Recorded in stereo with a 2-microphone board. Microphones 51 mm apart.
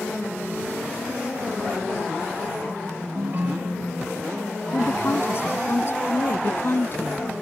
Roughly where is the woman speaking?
Left.